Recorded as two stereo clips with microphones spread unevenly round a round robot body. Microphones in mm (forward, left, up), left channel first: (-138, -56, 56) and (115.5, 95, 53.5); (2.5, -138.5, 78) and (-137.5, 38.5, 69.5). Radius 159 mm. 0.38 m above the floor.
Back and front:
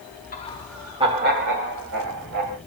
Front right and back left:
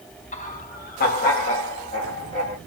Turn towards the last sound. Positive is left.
turn(degrees=15)